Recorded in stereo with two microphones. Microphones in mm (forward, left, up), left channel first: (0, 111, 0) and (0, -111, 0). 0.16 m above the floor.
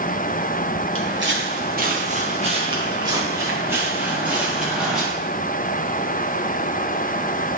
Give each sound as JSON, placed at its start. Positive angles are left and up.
{"t": 0.9, "sound": "footsteps", "side_deg": -65, "distance_m": 2.0}